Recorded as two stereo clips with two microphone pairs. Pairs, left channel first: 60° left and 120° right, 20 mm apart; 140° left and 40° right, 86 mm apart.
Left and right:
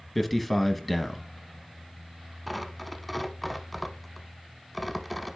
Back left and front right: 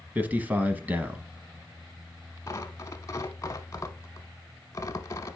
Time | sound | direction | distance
0.1 | a man speaking | 20° right | 1.0 m
2.5 | tearing paper | 140° left | 0.9 m